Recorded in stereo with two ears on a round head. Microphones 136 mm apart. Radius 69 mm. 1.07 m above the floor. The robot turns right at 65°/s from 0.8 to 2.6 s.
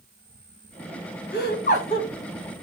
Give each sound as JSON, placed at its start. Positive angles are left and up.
{"t": 1.3, "sound": "laughter", "azimuth_deg": 95, "distance_m": 1.2}